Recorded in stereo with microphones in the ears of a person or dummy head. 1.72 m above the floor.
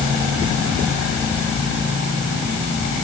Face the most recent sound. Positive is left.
No sound to turn to.